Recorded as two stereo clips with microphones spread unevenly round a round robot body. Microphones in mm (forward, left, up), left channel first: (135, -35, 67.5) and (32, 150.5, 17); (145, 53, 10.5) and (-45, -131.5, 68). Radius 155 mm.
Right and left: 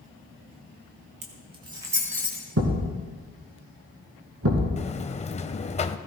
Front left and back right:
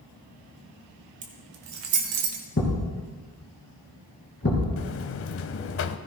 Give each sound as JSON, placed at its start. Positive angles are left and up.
{"t": 1.2, "sound": "keys jangling", "azimuth_deg": 155, "distance_m": 1.2}
{"t": 2.6, "sound": "a thud", "azimuth_deg": 100, "distance_m": 3.0}
{"t": 4.8, "sound": "a buzzer", "azimuth_deg": 0, "distance_m": 0.7}